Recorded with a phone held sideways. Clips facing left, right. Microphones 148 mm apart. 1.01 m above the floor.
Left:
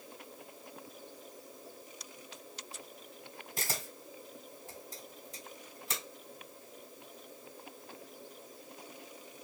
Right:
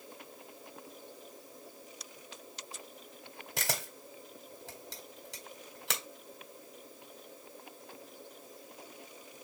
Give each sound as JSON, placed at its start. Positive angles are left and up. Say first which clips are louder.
{"t": 3.6, "sound": "a camera shutter", "louder": "right 3 dB", "side_deg": -80, "distance_m": 1.7}